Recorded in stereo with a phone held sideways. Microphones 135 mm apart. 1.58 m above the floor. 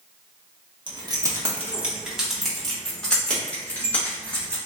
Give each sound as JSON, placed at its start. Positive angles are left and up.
{"t": 0.9, "sound": "keys jangling", "side_deg": -35, "distance_m": 1.0}